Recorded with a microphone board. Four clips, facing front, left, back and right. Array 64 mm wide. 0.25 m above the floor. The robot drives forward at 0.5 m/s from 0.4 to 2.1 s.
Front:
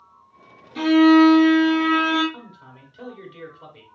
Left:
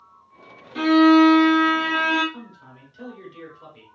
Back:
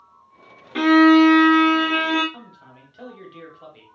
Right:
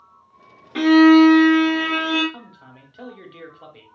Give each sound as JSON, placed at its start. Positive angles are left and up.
{"t": 0.8, "sound": "a violin", "azimuth_deg": -150, "distance_m": 0.6}
{"t": 2.3, "sound": "a man speaking", "azimuth_deg": -95, "distance_m": 1.1}